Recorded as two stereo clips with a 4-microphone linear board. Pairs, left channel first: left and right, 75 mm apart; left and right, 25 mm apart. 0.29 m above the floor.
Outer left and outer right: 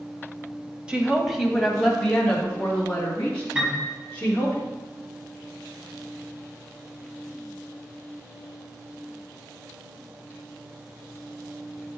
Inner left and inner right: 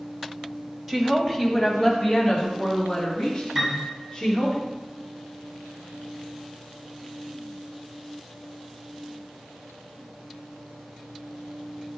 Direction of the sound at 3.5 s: 10° right (ahead or behind).